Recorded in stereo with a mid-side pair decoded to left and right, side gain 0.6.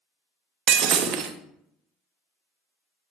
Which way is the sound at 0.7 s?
55° right.